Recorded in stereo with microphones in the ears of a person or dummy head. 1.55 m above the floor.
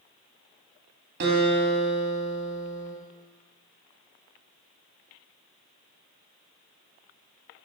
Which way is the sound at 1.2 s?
60° right (ahead or behind).